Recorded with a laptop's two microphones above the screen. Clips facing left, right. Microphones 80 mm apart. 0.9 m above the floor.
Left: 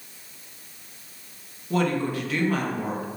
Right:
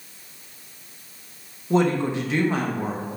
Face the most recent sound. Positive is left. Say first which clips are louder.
# right 4 dB
turn(degrees=-20)  # may be behind; listen again after turning